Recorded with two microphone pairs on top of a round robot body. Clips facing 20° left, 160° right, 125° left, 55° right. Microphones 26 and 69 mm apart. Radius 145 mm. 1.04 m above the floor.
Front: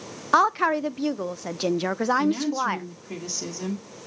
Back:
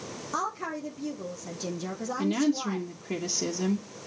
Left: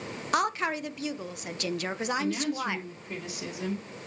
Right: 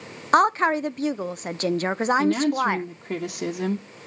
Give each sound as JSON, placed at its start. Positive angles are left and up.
{"t": 0.3, "sound": "a woman speaking", "azimuth_deg": -15, "distance_m": 0.6}
{"t": 2.2, "sound": "a woman speaking", "azimuth_deg": -90, "distance_m": 1.2}